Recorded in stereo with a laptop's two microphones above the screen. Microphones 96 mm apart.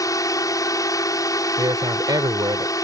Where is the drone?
40° left (ahead or behind).